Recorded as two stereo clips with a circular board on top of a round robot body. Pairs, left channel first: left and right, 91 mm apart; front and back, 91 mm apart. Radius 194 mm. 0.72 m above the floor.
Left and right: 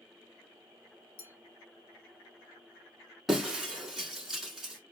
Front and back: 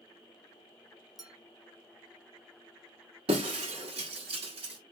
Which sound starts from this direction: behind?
Breaking glass, at 3.3 s.